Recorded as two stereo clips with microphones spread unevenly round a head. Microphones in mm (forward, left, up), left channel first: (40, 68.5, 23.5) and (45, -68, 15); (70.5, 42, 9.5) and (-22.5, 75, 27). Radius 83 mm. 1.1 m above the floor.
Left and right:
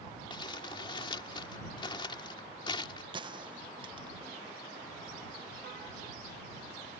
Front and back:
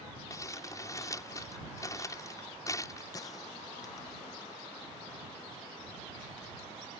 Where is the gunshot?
50° right.